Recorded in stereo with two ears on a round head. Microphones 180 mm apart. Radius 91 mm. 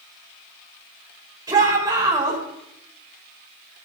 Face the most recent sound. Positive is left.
turn(degrees=-20)  # may be behind; listen again after turning